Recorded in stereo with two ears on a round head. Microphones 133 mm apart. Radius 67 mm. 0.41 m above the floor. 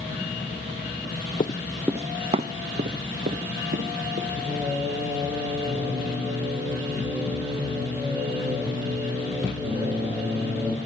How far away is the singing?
About 4 m.